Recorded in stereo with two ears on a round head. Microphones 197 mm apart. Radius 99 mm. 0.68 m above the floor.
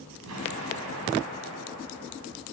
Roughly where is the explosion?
Right.